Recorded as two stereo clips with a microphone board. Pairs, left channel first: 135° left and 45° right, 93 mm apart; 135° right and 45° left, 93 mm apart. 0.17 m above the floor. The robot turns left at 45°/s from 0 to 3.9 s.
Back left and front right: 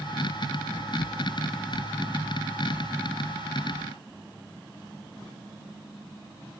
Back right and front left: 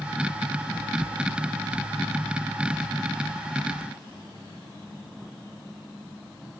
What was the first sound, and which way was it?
Only background noise.